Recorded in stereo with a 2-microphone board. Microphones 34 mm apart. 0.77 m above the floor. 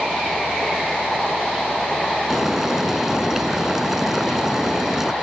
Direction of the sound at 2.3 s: 15° right (ahead or behind).